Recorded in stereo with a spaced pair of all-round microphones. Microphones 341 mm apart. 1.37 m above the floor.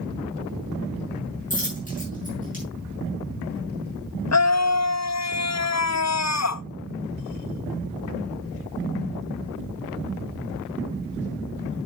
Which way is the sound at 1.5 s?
25° left (ahead or behind).